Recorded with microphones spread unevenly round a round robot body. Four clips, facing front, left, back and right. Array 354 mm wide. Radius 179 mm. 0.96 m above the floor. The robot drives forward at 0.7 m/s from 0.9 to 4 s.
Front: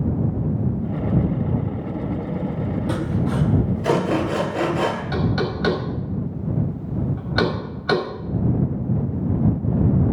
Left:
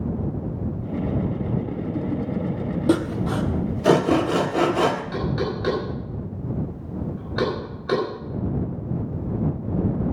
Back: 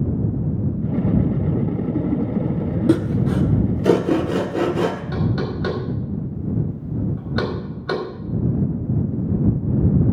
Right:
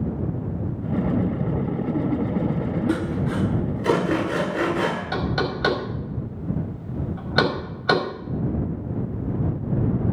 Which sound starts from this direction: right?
Knocking, at 5.1 s.